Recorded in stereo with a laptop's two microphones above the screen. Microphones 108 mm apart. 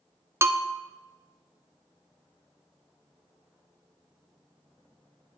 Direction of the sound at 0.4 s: 25° right (ahead or behind).